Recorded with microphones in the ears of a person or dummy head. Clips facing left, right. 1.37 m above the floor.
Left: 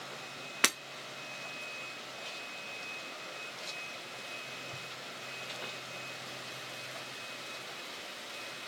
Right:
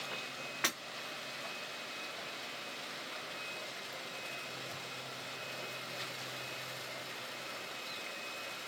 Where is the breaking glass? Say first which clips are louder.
Left 5 dB; 50° left (ahead or behind), 0.7 m.